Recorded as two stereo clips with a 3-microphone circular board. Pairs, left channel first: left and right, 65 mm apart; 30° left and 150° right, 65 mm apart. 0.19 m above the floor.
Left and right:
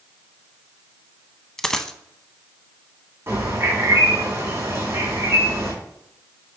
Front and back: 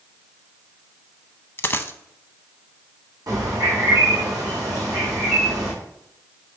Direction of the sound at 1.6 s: 20° left.